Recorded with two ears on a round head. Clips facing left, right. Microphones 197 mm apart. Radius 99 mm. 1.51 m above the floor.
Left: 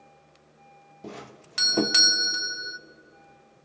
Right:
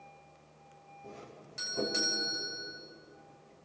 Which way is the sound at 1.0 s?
80° left.